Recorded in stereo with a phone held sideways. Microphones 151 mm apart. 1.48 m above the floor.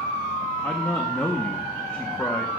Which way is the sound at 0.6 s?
15° left (ahead or behind).